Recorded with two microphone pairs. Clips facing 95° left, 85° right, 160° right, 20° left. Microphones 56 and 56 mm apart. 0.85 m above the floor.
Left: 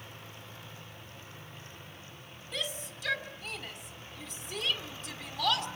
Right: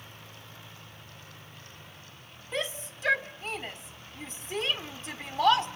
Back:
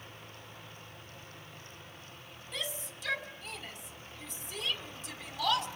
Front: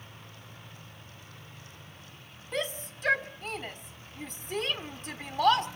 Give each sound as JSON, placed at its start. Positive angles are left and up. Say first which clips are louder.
{"t": 2.5, "sound": "a shout", "louder": "right 5 dB, front 7 dB", "azimuth_deg": -25, "distance_m": 1.9}